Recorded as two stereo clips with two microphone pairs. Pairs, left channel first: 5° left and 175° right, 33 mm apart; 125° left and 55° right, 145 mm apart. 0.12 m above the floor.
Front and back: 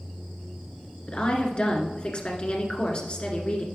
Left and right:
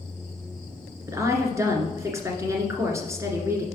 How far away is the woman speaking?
About 1.6 m.